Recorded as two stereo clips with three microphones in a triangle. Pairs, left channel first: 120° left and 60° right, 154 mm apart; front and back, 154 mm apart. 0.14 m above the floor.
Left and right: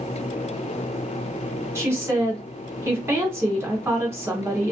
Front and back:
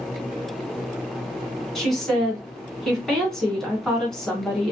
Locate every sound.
1.8 s a woman speaking: 80° right, 1.2 m